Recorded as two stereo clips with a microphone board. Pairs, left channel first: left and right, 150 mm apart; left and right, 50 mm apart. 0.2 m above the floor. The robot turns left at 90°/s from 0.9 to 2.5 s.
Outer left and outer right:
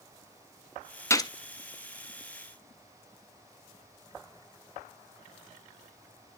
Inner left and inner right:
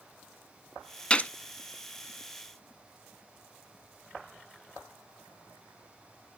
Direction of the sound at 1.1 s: 20° left (ahead or behind).